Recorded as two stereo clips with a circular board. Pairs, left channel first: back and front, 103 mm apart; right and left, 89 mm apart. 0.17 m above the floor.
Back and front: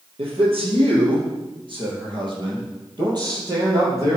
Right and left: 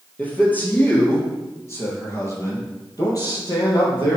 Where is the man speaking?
15° right, 4 m; by 4.2 s 50° right, 5 m.